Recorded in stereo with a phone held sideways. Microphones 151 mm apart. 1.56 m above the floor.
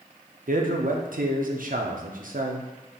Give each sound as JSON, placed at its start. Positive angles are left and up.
{"t": 0.5, "sound": "a man speaking", "side_deg": -65, "distance_m": 0.6}